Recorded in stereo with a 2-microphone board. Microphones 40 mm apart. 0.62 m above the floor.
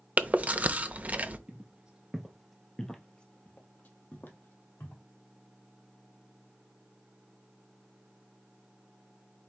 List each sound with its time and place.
0.2 s chewing: 40° right (ahead or behind), 0.6 m
1.5 s footsteps: 30° right (ahead or behind), 1.1 m; by 5.0 s 65° left (ahead or behind), 1.5 m